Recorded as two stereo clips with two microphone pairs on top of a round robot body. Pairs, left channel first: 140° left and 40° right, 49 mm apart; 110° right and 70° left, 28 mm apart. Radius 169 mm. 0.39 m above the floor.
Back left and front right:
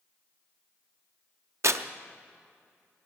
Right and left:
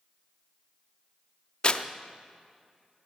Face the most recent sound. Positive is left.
turn(degrees=-55)